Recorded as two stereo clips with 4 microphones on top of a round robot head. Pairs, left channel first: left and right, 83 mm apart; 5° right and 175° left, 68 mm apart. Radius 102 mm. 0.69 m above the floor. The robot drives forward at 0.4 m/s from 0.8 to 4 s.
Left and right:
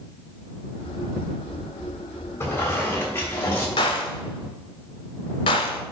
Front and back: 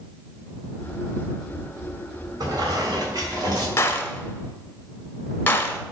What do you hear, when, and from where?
2.4 s a squeak: 145° left, 3 m; by 3.7 s 150° left, 3.5 m
3.8 s a gunshot: 50° left, 0.7 m; by 5.8 s 60° left, 0.6 m